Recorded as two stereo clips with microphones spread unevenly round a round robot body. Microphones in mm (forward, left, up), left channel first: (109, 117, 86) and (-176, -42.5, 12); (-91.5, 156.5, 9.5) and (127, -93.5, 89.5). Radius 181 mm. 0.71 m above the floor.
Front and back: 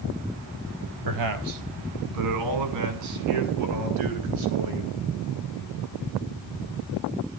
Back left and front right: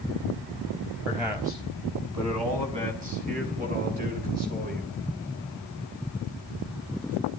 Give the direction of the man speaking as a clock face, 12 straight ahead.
4 o'clock.